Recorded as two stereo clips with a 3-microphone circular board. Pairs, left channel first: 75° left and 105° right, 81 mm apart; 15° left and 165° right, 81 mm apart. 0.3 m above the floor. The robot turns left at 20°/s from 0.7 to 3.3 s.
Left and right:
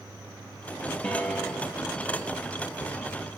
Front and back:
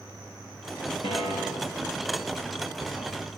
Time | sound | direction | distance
1.0 | a piano | 5° left | 7 m